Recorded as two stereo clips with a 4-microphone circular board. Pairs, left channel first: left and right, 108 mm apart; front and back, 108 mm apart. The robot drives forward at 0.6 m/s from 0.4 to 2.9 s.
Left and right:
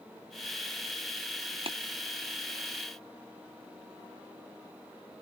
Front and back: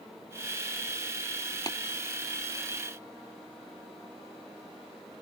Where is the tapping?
55° right.